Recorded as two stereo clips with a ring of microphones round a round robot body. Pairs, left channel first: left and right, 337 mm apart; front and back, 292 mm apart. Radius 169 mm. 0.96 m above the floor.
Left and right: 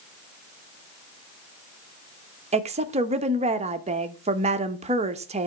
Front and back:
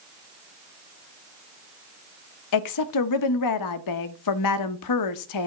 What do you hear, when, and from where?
2.5 s a woman speaking: 20° right, 0.9 m